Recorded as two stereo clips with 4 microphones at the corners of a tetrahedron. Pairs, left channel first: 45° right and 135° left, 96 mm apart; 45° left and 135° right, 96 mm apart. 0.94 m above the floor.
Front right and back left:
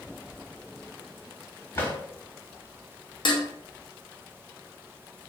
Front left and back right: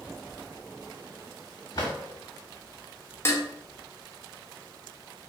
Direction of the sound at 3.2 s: 20° right.